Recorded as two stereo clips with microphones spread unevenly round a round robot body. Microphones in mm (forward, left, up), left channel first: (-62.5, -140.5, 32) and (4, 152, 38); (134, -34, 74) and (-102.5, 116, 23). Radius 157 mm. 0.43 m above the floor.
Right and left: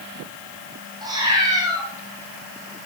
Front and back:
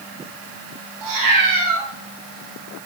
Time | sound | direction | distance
1.0 | a cat meowing | 155° left | 5 m